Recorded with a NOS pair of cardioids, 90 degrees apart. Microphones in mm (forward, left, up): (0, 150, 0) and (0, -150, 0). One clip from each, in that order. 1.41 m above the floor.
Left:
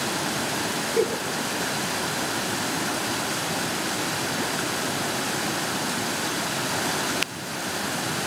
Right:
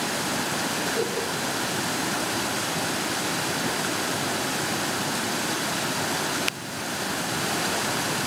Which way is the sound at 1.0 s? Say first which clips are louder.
Left 3 dB; 45° left.